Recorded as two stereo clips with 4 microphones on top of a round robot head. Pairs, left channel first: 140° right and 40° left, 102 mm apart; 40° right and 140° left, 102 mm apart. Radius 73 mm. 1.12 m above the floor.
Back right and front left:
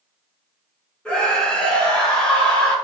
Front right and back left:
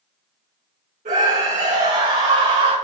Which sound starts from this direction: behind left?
A scream, at 1.1 s.